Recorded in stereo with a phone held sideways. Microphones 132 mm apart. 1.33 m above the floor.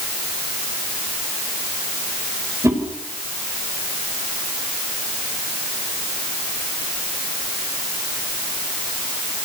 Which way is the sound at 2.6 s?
25° right (ahead or behind).